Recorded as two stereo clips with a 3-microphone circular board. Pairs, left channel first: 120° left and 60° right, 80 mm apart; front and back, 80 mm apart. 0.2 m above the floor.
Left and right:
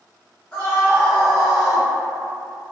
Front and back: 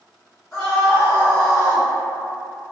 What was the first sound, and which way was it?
A scream, 85° left.